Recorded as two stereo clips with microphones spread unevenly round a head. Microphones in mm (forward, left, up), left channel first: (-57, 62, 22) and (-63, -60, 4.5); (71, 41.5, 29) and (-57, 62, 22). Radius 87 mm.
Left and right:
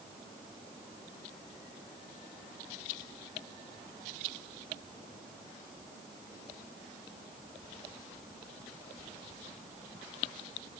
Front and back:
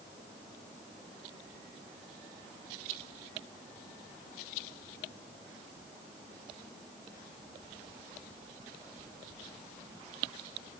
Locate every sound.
Only background noise.